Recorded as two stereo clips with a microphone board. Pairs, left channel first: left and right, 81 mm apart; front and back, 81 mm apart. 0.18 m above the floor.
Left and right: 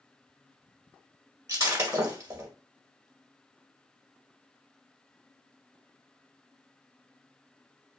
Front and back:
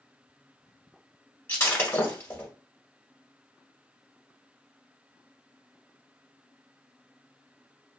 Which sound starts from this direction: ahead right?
Breaking glass, at 1.5 s.